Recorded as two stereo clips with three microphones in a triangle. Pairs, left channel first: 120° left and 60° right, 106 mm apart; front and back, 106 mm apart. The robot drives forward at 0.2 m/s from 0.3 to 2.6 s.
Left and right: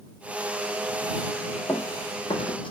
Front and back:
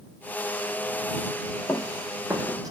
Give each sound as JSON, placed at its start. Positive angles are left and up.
{"t": 1.7, "sound": "running footsteps", "azimuth_deg": 65, "distance_m": 0.8}